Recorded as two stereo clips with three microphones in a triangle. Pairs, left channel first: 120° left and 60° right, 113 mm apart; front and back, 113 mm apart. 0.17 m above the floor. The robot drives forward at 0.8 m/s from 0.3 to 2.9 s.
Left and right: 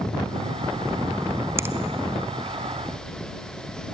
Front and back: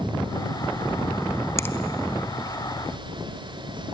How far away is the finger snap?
About 1.0 m.